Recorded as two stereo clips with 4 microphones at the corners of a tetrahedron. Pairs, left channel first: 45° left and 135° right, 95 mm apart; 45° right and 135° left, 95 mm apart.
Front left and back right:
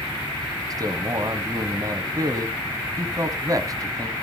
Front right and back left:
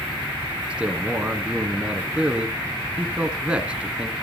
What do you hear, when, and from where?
0.7 s a man speaking: 155° right, 1.2 m